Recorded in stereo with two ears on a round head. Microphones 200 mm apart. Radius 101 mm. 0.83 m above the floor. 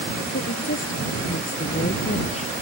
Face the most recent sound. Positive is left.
turn(degrees=30)  # may be behind; listen again after turning